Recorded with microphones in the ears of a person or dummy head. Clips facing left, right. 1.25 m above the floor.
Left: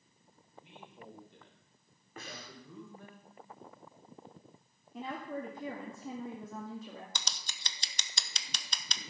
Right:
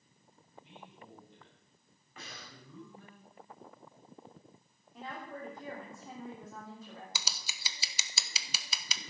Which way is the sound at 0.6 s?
60° left (ahead or behind).